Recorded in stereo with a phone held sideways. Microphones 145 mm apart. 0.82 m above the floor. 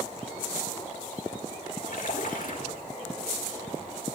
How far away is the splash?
About 1.6 m.